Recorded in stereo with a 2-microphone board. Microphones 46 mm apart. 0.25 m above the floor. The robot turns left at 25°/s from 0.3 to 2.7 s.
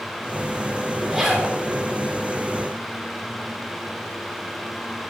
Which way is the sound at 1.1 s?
10° right (ahead or behind).